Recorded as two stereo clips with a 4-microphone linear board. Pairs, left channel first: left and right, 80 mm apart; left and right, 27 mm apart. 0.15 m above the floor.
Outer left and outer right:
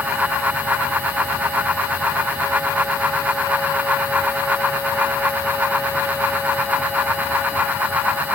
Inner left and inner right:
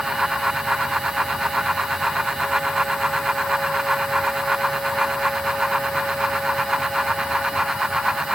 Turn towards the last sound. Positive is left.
No sound to turn to.